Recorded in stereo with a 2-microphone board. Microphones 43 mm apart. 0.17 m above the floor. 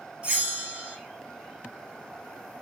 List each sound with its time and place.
0.2 s a bell: 25° right (ahead or behind), 0.7 m